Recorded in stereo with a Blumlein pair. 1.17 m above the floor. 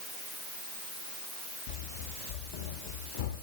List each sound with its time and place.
1.7 s running footsteps: 50° left, 9.5 m; by 3.3 s 55° left, 10 m